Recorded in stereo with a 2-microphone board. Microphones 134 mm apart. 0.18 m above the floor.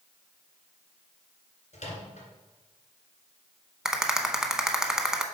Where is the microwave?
60° left (ahead or behind), 2 m.